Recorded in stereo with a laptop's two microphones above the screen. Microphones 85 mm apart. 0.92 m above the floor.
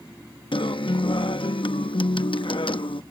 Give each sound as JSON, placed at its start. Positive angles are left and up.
{"t": 0.5, "sound": "a guitar", "side_deg": 75}